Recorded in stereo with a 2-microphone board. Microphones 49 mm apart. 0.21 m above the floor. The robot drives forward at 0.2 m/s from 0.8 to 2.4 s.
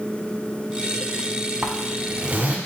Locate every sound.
1.6 s a zipper: 40° right (ahead or behind), 0.5 m; by 2.6 s 35° right (ahead or behind), 0.6 m